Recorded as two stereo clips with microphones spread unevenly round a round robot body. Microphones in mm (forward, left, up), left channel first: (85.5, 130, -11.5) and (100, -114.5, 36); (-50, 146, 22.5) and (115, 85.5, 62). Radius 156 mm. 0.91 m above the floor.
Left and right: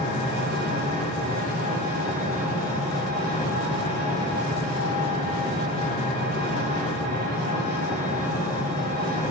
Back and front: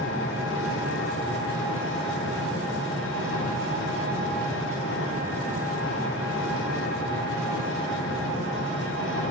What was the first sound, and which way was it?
An engine running, 175° left.